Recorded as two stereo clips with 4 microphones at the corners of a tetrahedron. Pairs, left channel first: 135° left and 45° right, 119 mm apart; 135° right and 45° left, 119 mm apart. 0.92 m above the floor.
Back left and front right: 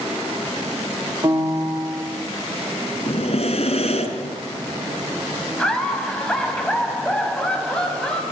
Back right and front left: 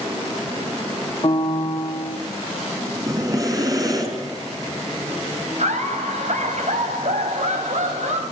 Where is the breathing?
105° left, 4 m.